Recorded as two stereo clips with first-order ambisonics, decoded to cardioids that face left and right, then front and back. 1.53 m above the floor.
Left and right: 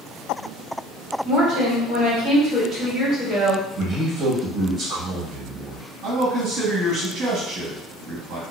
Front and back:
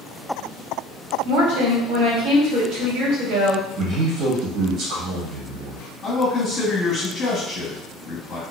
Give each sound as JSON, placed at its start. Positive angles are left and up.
{"t": 1.2, "sound": "a woman speaking", "azimuth_deg": -155, "distance_m": 1.5}
{"t": 3.8, "sound": "a man speaking", "azimuth_deg": -145, "distance_m": 1.6}
{"t": 6.0, "sound": "a man speaking", "azimuth_deg": -60, "distance_m": 1.6}